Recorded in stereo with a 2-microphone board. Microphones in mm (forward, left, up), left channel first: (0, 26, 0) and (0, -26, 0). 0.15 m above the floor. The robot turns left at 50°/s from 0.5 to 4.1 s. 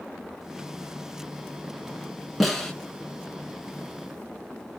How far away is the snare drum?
About 1.1 m.